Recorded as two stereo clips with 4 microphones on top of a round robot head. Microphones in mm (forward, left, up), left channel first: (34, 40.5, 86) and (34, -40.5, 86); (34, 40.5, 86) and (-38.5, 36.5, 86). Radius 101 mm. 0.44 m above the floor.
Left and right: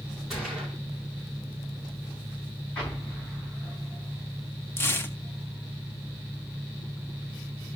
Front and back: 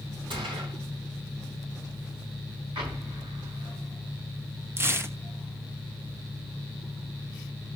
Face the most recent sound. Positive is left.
turn(degrees=140)